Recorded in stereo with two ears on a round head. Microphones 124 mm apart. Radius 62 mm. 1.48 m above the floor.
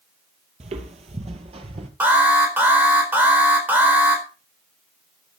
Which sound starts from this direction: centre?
An alarm, at 2.0 s.